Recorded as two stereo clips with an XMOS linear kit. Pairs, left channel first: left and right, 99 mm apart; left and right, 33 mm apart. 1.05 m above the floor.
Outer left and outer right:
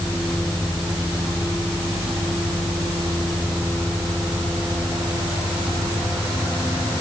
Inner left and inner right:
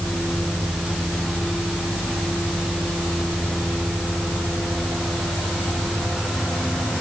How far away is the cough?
I don't hear a cough.